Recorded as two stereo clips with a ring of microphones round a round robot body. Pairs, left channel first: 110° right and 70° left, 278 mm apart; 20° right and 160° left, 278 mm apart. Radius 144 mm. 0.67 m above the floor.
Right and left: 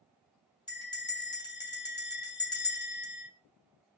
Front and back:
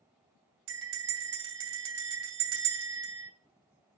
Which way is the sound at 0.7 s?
170° left.